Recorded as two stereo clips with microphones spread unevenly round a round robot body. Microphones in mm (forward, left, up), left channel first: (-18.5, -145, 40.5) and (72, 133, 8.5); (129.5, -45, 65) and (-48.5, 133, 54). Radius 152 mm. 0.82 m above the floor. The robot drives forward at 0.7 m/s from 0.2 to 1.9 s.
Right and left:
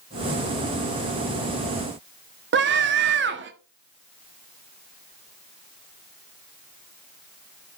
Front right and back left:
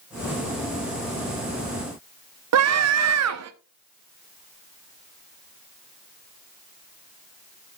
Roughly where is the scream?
Behind left.